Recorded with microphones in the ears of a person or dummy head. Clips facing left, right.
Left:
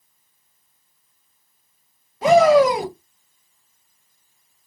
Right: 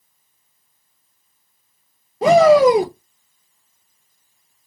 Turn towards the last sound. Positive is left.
turn(degrees=-35)  # may be behind; listen again after turning